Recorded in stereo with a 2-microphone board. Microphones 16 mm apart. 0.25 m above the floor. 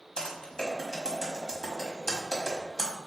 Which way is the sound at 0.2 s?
35° left (ahead or behind).